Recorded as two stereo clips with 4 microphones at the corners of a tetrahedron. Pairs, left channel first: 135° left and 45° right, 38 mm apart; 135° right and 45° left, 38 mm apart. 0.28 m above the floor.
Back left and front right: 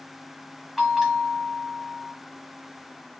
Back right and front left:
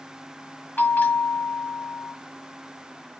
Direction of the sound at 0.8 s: 130° right.